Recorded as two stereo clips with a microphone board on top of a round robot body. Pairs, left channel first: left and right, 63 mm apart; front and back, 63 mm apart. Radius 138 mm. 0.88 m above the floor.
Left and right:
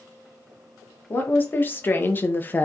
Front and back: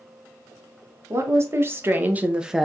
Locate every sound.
1.1 s a woman speaking: 145° left, 1.2 m; by 2.7 s 95° left, 0.7 m